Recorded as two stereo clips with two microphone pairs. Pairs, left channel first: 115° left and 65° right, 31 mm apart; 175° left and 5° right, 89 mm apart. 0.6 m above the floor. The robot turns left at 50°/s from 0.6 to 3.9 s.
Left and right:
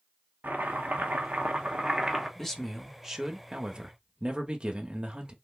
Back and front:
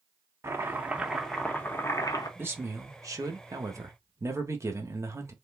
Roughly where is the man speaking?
Ahead left.